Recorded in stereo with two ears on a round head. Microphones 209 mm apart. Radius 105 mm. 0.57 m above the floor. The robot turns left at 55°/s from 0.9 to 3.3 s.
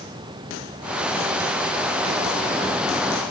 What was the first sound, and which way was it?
Only background noise.